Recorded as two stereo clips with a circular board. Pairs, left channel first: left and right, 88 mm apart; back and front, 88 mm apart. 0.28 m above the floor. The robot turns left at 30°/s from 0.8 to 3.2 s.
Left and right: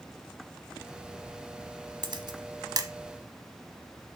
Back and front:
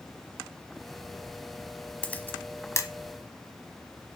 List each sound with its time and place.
2.0 s a camera shutter: 105° right, 1.0 m; by 2.9 s 130° right, 1.0 m